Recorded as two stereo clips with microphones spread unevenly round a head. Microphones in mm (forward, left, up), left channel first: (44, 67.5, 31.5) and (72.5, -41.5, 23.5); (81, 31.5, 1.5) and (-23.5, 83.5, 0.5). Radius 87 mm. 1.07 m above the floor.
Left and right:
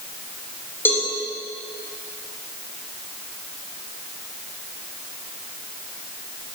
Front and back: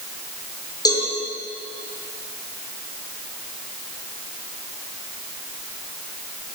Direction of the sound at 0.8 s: 30° left.